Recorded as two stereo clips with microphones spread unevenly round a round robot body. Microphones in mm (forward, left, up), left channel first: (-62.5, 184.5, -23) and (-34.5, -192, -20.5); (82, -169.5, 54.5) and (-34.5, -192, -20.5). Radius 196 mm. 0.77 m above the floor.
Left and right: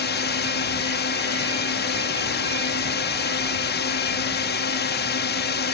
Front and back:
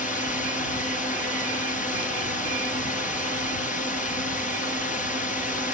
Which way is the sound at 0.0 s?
55° left.